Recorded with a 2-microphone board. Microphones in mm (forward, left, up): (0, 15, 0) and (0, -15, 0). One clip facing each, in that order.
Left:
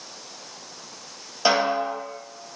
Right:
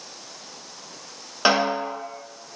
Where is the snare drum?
45° right (ahead or behind), 1.3 m.